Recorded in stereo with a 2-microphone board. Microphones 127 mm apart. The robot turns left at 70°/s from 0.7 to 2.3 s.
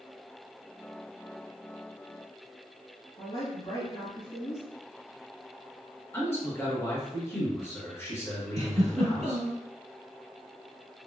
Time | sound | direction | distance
3.2 | a woman speaking | 30° left (ahead or behind) | 1.6 m
6.1 | a man speaking | 20° left (ahead or behind) | 1.5 m
8.6 | a giggle | 60° right (ahead or behind) | 1.7 m